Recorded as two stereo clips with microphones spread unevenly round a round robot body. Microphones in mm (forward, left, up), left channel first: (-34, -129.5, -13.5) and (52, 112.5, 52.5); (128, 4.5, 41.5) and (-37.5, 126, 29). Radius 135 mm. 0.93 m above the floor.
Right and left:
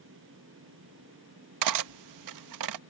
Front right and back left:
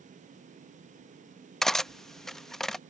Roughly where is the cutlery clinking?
Ahead left.